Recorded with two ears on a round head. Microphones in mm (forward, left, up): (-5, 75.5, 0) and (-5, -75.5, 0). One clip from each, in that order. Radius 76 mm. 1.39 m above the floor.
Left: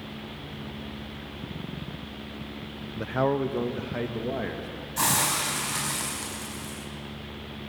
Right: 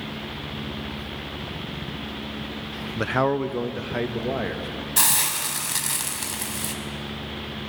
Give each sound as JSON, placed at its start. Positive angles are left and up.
{"t": 3.0, "sound": "a man speaking", "side_deg": -50, "distance_m": 0.5}
{"t": 5.0, "sound": "a hiss", "side_deg": -65, "distance_m": 4.5}